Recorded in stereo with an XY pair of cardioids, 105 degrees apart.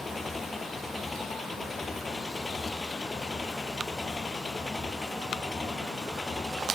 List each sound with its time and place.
0.0 s an engine running: 20° left